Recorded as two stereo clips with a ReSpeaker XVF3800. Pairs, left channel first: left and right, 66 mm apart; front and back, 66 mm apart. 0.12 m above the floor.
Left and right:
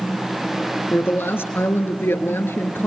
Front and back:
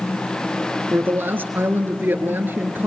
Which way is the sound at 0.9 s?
135° left.